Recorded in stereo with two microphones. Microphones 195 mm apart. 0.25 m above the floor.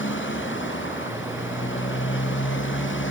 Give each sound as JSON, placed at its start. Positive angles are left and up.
{"t": 0.0, "sound": "a motorcycle", "side_deg": 85}